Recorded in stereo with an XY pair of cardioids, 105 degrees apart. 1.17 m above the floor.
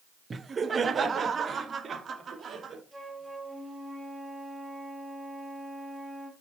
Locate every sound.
0.3 s laughter: 30° right, 0.7 m; by 2.8 s 50° right, 2.5 m
2.9 s a flute: 10° right, 1.9 m